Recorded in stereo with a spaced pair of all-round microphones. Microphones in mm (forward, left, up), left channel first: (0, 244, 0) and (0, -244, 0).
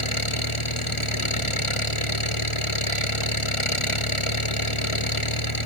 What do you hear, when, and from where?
0.0 s an engine running: 85° left